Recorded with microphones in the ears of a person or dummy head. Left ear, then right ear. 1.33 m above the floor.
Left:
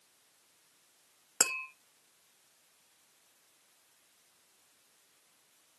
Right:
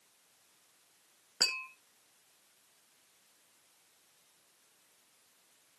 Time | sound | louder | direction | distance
1.4 | tapping | even | 75° left (ahead or behind) | 1.8 m